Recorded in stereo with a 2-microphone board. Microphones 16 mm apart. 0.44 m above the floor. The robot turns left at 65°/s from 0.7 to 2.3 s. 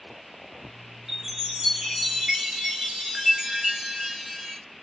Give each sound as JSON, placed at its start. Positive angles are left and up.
{"t": 1.1, "sound": "a chime", "azimuth_deg": -45, "distance_m": 1.9}